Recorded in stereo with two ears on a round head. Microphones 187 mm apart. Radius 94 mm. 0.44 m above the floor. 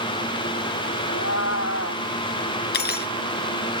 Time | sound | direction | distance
1.1 | a cat meowing | 65° left (ahead or behind) | ?
2.7 | cutlery clinking | 50° left (ahead or behind) | ?